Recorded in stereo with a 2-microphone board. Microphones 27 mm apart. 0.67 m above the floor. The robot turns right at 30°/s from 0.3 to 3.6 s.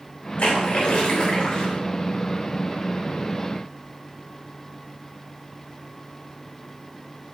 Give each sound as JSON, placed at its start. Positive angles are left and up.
{"t": 0.4, "sound": "a splash", "azimuth_deg": 110, "distance_m": 3.0}